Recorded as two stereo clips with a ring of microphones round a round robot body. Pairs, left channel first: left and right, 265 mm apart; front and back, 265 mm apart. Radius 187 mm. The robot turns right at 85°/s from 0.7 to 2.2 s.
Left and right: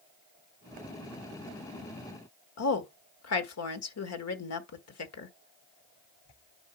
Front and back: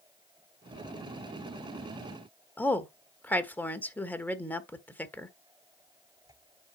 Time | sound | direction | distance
2.6 | a woman speaking | 85° left | 1.7 m